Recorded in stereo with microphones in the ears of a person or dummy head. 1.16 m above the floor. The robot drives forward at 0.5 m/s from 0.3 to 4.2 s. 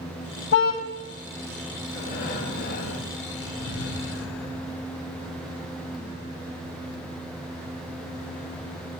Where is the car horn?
75° left (ahead or behind), 2.5 m.